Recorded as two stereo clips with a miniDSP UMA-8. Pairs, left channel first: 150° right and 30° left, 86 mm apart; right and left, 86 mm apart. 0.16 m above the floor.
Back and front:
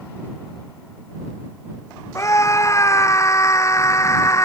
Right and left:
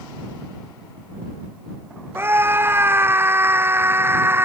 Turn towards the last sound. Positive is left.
turn(degrees=155)